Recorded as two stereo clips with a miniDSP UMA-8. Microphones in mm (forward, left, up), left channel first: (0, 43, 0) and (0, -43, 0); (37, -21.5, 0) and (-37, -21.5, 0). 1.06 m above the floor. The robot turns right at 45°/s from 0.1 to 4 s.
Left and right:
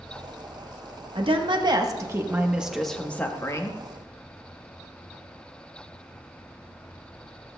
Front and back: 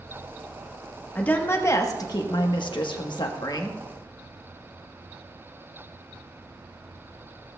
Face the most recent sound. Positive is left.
turn(degrees=55)